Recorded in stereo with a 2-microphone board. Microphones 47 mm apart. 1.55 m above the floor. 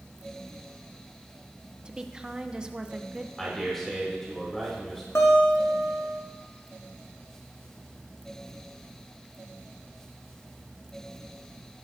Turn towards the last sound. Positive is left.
turn(degrees=60)  # may be behind; listen again after turning